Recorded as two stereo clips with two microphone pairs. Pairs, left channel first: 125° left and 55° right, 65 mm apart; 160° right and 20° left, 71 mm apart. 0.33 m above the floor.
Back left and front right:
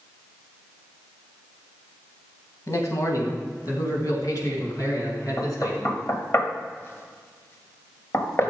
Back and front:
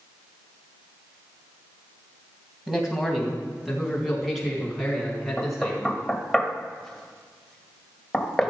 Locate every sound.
2.7 s a man speaking: 105° left, 2.5 m; by 6.0 s 115° left, 5 m
5.4 s knocking: 120° left, 1.4 m